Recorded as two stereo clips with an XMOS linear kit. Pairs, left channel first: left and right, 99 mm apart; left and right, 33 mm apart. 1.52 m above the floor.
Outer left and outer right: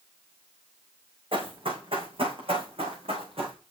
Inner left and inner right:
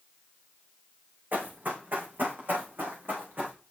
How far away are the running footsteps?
About 4.5 m.